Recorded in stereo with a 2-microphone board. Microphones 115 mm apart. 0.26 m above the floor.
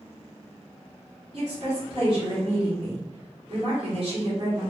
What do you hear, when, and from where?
1.3 s a woman speaking: 50° right (ahead or behind), 1.9 m